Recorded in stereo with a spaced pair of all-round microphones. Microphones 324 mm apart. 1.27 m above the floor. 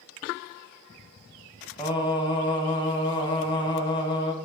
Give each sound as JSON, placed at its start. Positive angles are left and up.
{"t": 1.8, "sound": "singing", "side_deg": 15, "distance_m": 0.8}